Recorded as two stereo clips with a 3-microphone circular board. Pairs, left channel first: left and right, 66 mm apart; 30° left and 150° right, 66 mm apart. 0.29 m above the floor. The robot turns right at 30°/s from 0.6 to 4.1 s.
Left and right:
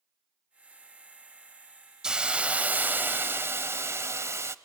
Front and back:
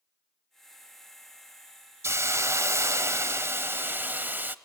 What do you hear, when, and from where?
2.0 s a hiss: 165° right, 0.6 m; by 4.5 s 105° right, 0.6 m